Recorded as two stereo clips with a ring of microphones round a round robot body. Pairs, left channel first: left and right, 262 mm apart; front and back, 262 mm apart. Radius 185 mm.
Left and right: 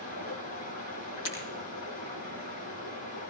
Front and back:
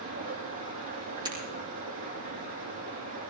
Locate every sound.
0.0 s running water: 130° left, 9 m
1.2 s breaking glass: 110° left, 6.5 m